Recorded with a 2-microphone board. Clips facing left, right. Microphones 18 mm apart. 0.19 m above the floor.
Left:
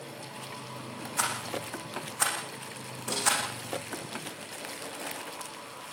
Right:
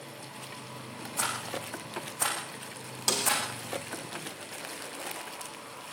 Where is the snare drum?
75° right (ahead or behind), 6.5 m.